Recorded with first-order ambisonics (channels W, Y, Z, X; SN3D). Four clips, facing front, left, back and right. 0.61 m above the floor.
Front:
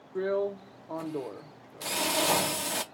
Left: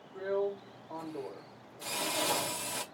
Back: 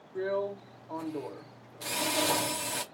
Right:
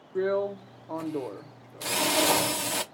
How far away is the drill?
About 0.7 m.